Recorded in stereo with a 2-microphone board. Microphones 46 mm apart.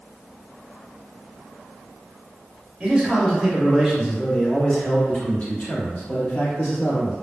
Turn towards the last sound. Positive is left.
turn(degrees=55)  # may be behind; listen again after turning